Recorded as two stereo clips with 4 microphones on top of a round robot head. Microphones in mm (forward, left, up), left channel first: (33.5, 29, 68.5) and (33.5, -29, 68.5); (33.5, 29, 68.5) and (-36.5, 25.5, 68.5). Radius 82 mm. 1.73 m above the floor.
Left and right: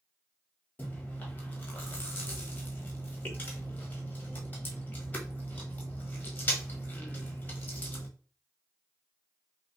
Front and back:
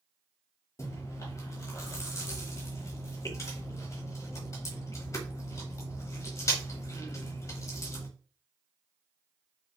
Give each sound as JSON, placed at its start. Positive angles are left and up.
{"t": 0.8, "sound": "chewing", "azimuth_deg": 35, "distance_m": 1.2}